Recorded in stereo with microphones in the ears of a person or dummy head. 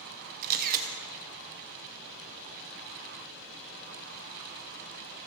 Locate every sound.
0.4 s a camera shutter: 50° right (ahead or behind), 1.1 m